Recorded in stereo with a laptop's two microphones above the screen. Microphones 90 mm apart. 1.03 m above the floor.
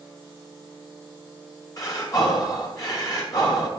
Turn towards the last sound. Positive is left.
turn(degrees=40)  # may be behind; listen again after turning